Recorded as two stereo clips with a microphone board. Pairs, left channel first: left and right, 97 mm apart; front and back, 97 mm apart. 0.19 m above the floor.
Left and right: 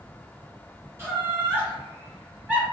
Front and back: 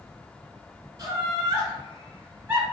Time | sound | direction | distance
1.0 | laughter | 145° right | 1.9 m